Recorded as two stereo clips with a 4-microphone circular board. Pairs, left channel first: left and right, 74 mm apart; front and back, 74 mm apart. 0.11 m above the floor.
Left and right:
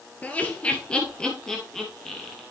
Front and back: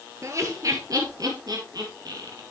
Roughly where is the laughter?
Behind left.